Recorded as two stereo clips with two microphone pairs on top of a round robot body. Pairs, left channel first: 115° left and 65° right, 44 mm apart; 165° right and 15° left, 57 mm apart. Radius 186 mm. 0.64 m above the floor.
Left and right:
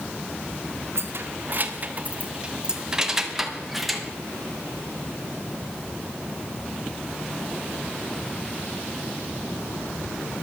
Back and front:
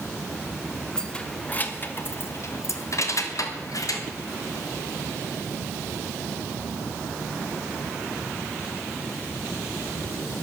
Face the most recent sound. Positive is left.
turn(degrees=-155)